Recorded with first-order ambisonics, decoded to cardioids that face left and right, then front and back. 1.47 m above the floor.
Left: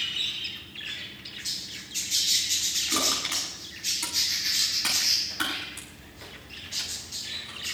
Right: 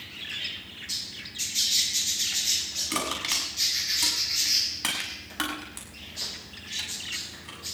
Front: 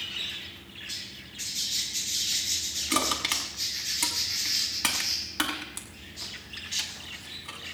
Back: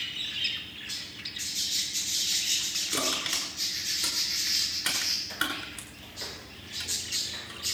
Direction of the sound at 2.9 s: 25° right.